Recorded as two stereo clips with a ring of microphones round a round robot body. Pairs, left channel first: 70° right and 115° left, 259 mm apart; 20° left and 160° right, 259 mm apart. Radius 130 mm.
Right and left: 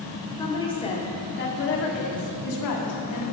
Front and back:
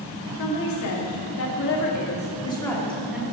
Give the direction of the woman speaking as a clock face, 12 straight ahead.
12 o'clock.